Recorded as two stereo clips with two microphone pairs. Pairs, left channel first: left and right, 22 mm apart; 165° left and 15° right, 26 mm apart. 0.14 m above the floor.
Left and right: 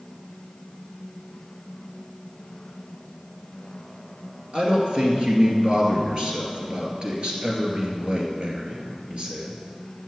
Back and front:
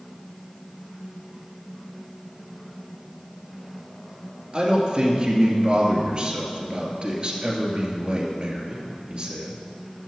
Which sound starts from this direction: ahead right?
A man speaking, at 4.5 s.